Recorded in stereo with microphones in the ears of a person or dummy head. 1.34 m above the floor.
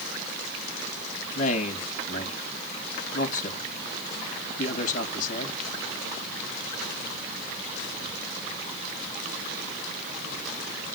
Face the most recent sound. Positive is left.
turn(degrees=45)  # may be behind; listen again after turning